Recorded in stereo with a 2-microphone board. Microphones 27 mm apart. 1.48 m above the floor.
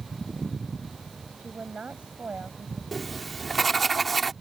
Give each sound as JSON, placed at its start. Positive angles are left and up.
{"t": 1.4, "sound": "a woman speaking", "side_deg": -50}
{"t": 2.9, "sound": "writing", "side_deg": 5}